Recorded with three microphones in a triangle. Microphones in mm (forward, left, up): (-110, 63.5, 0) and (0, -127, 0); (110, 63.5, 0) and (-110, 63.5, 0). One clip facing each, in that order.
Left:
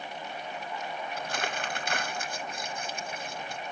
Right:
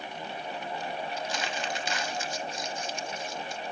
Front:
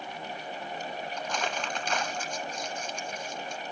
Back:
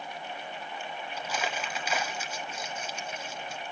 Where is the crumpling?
95° left, 0.9 m.